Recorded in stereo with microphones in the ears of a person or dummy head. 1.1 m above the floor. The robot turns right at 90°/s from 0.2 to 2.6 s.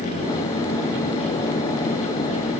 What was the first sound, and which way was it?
Only background noise.